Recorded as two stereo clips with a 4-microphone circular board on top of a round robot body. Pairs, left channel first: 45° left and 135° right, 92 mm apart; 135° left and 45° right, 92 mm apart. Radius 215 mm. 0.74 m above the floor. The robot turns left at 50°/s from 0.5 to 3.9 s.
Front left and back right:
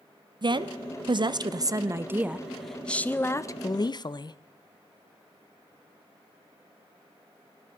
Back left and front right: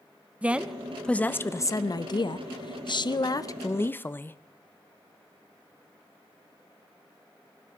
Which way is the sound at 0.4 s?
120° right.